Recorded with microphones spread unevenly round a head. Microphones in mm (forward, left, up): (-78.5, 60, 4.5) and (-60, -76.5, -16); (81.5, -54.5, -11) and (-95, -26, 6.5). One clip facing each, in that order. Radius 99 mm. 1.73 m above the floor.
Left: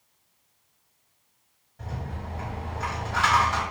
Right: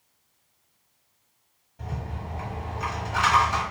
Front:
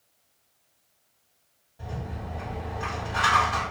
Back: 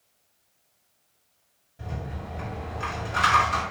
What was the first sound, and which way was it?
A rattle, 155° right.